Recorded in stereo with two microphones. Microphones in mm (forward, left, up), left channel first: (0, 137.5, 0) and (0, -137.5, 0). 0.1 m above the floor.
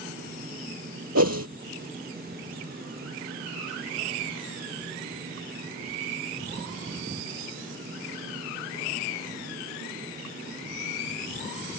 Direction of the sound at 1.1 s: 70° right (ahead or behind).